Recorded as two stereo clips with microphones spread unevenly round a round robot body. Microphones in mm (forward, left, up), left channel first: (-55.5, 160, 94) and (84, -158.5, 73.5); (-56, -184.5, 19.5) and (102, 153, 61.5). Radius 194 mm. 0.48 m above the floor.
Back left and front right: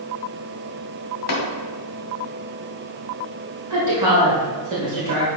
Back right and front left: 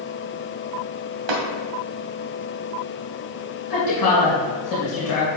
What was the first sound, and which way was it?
Tapping, 60° left.